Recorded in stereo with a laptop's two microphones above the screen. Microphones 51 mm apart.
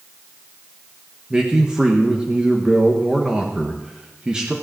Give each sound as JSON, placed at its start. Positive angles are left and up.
{"t": 1.3, "sound": "a man speaking", "side_deg": -15, "distance_m": 1.2}